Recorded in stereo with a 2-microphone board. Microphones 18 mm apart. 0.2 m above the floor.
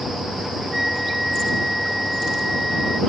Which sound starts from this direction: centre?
A flute, at 0.7 s.